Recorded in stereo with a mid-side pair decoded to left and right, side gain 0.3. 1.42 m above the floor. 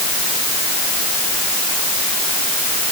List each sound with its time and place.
Only background noise.